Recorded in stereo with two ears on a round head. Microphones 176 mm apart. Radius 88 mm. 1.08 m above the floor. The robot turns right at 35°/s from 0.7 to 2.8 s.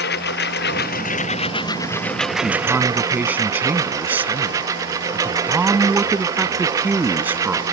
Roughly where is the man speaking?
Centre.